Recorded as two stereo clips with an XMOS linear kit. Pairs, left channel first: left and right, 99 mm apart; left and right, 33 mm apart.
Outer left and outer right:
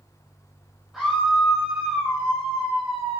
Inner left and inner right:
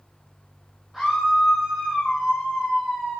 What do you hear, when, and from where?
0.9 s a scream: 5° right (ahead or behind), 8 m; by 3.2 s 15° right (ahead or behind), 8 m